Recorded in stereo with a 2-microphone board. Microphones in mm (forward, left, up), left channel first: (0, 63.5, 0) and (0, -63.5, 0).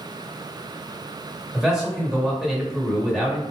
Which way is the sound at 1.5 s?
5° right (ahead or behind).